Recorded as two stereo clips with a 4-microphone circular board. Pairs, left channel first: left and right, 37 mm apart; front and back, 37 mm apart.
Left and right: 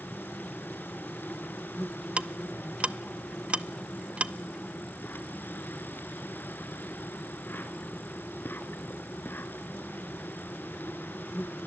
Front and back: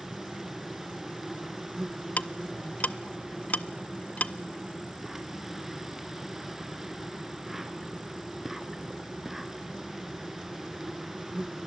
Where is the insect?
100° left, 1.5 m.